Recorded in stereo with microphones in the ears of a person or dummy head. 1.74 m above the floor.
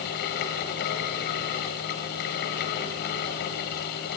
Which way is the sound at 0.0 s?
55° left (ahead or behind).